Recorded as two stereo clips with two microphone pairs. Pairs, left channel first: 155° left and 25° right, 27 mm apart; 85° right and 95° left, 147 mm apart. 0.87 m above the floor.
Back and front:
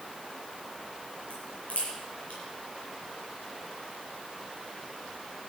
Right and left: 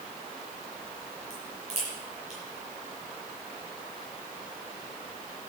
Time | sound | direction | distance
1.3 | a crack | 135° left | 8.5 m